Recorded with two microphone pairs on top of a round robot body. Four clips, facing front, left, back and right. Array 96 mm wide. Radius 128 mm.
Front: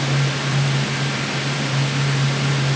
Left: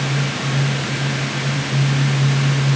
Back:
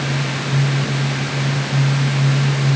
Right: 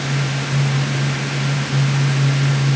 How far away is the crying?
No crying in this recording.